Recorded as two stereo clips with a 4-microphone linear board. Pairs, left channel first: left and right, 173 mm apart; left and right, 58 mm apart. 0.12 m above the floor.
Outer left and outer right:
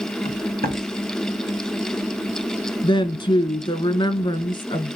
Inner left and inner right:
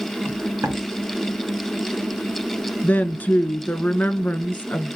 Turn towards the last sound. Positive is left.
turn(degrees=30)  # may be behind; listen again after turning